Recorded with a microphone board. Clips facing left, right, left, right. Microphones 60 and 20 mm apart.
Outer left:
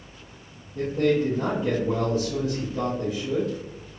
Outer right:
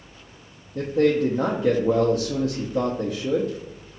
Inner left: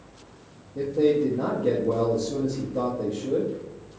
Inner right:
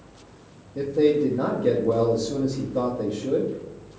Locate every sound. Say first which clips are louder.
0.8 s a man speaking: outer right 2 dB, inner right 2 dB; 65° right (ahead or behind), 0.5 m